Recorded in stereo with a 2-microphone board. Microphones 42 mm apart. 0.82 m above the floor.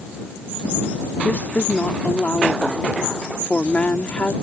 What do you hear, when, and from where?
1.2 s a woman speaking: 35° left (ahead or behind)